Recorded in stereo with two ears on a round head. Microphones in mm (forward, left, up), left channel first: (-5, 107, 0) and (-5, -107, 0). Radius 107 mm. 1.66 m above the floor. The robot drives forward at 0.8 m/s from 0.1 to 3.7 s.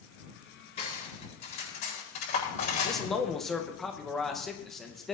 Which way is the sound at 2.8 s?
Centre (ahead or behind).